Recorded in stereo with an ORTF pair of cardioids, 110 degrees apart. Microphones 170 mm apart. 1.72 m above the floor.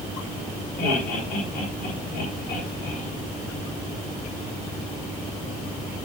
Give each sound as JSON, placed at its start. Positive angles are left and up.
{"t": 0.8, "sound": "laughter", "azimuth_deg": 60, "distance_m": 7.0}